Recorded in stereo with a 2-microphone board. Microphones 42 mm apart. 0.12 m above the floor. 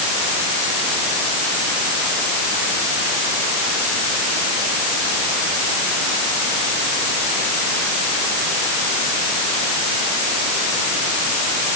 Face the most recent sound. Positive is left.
No sound to turn to.